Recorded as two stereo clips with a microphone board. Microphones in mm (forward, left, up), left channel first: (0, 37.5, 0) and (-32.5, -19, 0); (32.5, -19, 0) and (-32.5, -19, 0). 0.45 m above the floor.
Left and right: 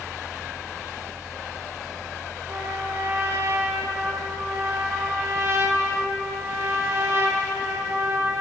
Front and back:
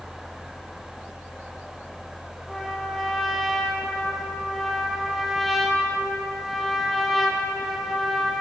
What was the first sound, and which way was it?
A trumpet, 90° right.